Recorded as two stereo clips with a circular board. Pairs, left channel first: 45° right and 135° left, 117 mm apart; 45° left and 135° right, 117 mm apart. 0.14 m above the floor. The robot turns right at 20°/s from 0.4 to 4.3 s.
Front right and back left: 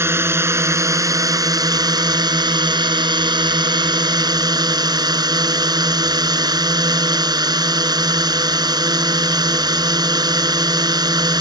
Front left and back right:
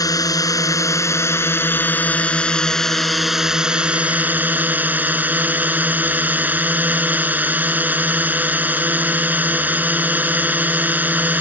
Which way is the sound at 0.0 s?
80° left.